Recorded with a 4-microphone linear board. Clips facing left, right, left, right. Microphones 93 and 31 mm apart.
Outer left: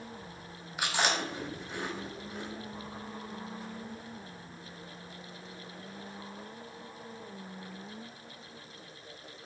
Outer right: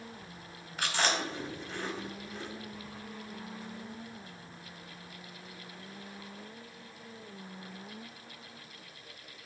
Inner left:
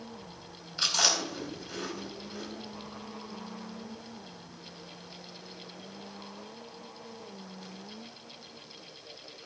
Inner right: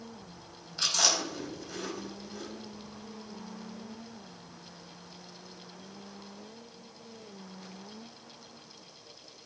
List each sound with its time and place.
0.8 s chewing: 10° left (ahead or behind), 2.5 m